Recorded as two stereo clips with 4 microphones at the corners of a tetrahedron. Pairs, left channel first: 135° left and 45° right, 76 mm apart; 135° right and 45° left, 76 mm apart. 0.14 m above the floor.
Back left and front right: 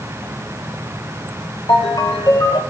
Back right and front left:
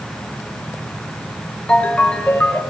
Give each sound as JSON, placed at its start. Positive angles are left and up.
{"t": 1.7, "sound": "a ringtone", "azimuth_deg": 150, "distance_m": 1.7}